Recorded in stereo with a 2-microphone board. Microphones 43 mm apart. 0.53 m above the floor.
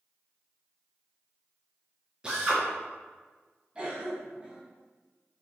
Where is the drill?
20° right (ahead or behind), 4 m.